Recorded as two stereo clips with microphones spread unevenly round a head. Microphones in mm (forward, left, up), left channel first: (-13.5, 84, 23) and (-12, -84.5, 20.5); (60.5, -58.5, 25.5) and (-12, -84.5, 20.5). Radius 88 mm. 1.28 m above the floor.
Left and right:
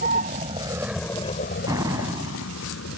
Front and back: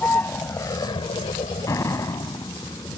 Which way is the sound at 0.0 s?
45° right.